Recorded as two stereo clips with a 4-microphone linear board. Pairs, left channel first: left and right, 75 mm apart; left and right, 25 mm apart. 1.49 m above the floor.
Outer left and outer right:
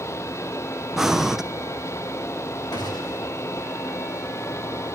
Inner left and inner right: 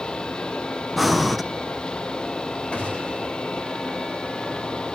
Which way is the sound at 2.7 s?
60° left (ahead or behind).